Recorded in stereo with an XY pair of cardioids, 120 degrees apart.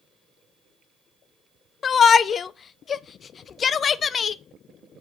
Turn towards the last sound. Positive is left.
turn(degrees=40)